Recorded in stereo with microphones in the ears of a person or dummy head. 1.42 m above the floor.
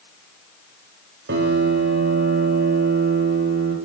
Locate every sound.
1.3 s a piano: 50° right (ahead or behind), 0.8 m